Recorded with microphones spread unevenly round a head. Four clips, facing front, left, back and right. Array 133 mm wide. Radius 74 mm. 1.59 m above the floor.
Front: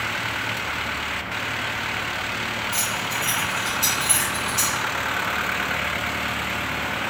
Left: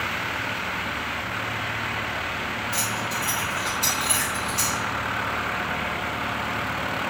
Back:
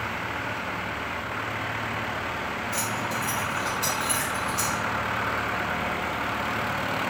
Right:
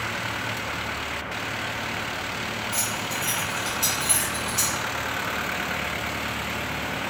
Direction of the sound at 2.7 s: 170° right.